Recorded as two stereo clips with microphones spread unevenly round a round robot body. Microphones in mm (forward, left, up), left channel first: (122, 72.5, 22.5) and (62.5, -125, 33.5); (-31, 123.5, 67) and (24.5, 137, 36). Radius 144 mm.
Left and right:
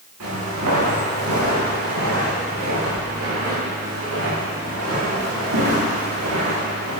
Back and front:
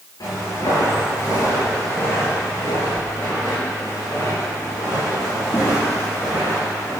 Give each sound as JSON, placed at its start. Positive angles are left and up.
{"t": 0.2, "sound": "footsteps", "azimuth_deg": -145, "distance_m": 4.0}